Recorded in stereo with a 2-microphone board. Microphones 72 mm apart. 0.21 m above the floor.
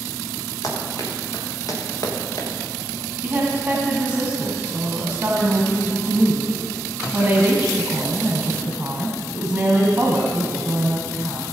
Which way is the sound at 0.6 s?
50° left (ahead or behind).